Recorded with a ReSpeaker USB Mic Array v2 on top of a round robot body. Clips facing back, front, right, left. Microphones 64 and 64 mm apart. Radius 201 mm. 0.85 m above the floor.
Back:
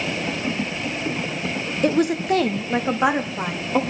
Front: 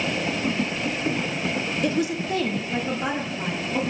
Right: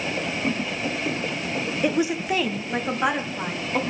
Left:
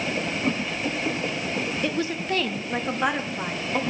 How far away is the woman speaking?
About 1.1 m.